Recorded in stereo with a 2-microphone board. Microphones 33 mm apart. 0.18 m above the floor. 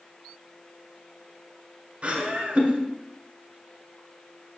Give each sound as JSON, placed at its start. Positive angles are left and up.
{"t": 2.0, "sound": "laughter", "side_deg": -30, "distance_m": 1.2}